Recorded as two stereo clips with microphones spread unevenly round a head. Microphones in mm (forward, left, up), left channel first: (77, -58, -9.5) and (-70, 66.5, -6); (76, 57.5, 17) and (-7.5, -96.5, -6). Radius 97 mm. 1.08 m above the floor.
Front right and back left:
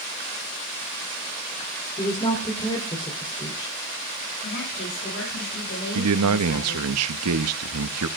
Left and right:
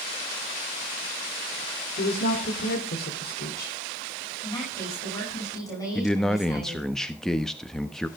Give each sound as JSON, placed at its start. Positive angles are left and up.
{"t": 2.0, "sound": "a woman speaking", "azimuth_deg": 25, "distance_m": 3.5}
{"t": 4.4, "sound": "a woman speaking", "azimuth_deg": -10, "distance_m": 9.0}
{"t": 6.0, "sound": "a man speaking", "azimuth_deg": 150, "distance_m": 1.0}